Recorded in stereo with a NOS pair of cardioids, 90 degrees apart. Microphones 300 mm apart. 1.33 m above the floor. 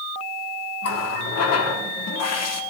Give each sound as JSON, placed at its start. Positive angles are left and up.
{"t": 0.8, "sound": "a running tap", "azimuth_deg": 60, "distance_m": 1.8}